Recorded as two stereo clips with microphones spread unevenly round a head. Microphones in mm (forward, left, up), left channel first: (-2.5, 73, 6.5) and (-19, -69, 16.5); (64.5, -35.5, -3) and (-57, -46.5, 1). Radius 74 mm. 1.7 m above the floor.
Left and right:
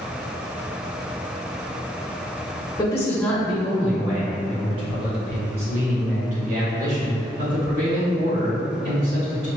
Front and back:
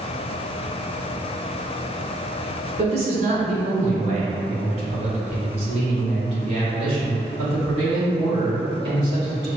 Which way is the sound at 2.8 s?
150° left.